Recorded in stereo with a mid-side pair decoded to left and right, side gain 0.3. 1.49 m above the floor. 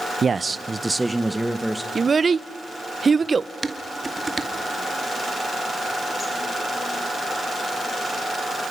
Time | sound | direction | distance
0.2 | a man speaking | 50° right | 0.8 m
1.9 | a child speaking | 45° right | 0.9 m
3.6 | dishes clattering | 35° right | 2 m